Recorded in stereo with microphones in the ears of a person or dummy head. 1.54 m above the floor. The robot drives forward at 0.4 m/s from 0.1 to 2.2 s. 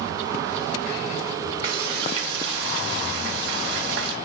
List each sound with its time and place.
1.6 s frying: 60° right (ahead or behind), 1.1 m; by 4.1 s 70° right (ahead or behind), 1.0 m